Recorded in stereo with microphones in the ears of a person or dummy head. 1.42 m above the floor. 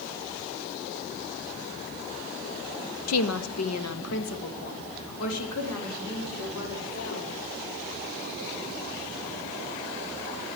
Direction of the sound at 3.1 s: 75° left (ahead or behind).